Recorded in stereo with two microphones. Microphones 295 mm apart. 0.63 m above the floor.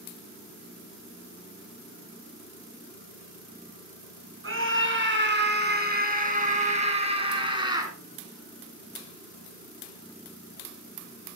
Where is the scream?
45° right (ahead or behind), 6.5 m; by 7.9 s 10° right (ahead or behind), 6.5 m.